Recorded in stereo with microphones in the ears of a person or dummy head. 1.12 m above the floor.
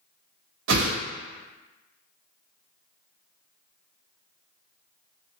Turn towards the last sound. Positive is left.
turn(degrees=-75)  # may be behind; listen again after turning